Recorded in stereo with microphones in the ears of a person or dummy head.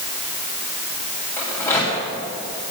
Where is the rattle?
15° left (ahead or behind), 2.5 m.